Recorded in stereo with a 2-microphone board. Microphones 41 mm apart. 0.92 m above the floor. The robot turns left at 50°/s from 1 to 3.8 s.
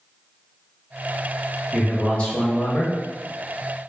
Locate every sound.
1.7 s a man speaking: 175° left, 0.8 m; by 3.0 s 110° left, 0.8 m